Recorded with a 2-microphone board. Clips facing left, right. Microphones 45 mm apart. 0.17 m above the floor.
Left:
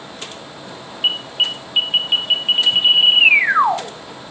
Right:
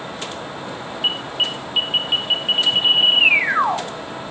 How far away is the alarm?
About 1.4 m.